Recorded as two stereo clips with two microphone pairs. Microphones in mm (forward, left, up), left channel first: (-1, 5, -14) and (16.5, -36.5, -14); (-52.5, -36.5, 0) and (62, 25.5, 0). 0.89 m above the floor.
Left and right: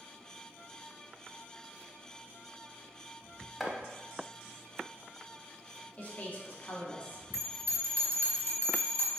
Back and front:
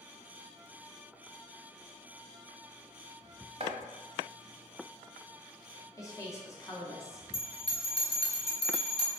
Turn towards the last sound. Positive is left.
turn(degrees=165)